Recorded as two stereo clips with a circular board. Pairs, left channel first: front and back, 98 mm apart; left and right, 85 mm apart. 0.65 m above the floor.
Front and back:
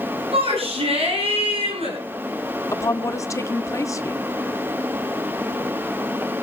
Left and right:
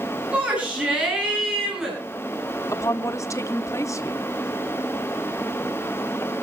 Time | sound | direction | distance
0.3 | a shout | 165° right | 7 m
2.7 | a woman speaking | 50° left | 1.6 m